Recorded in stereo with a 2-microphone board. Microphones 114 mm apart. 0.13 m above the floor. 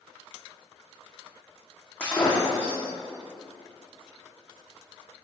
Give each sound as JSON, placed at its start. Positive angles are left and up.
{"t": 2.0, "sound": "breaking glass", "side_deg": 15, "distance_m": 2.5}